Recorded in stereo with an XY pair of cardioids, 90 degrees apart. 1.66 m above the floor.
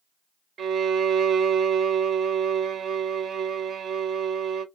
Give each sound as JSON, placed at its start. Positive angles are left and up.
{"t": 0.6, "sound": "a violin", "azimuth_deg": -60, "distance_m": 0.6}